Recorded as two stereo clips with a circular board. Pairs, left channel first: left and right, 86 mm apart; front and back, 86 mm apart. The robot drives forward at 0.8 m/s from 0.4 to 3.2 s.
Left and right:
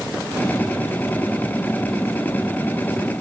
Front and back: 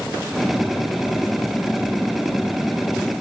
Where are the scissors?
No scissors in this recording.